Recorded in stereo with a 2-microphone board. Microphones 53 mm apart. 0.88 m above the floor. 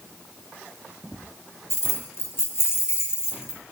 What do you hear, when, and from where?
1.7 s keys jangling: 50° left (ahead or behind), 0.7 m